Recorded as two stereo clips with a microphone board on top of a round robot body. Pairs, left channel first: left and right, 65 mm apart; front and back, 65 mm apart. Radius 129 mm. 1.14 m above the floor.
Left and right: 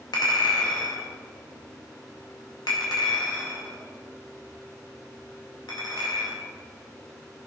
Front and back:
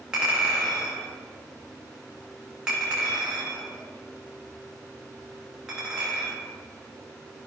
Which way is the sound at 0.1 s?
100° left.